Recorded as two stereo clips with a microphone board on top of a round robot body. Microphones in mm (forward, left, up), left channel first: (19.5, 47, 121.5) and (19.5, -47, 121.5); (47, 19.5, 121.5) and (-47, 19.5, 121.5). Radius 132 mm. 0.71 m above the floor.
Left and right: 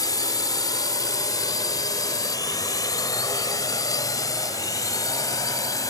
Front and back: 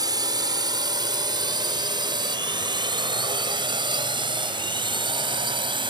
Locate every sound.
0.0 s a drone: 135° left; by 5.9 s 145° left